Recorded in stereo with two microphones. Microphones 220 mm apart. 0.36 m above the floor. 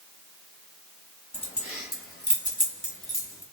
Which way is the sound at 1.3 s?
25° left (ahead or behind).